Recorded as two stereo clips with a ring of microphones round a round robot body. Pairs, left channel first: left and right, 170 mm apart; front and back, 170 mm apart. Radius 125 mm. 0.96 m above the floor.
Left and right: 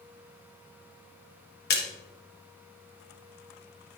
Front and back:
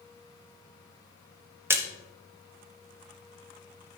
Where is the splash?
105° left, 1.4 m.